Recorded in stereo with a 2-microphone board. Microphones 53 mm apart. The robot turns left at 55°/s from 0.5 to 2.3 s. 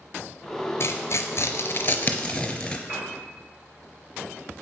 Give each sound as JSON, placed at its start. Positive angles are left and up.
{"t": 0.8, "sound": "tearing paper", "side_deg": 60, "distance_m": 0.8}
{"t": 2.9, "sound": "a piano", "side_deg": -25, "distance_m": 2.5}